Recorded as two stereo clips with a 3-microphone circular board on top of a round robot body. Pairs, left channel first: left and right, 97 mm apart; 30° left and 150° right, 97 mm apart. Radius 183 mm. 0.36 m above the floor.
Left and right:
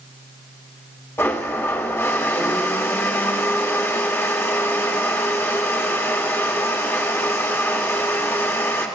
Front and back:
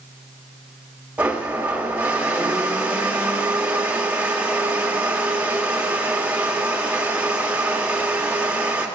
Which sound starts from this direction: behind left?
A blender, at 1.2 s.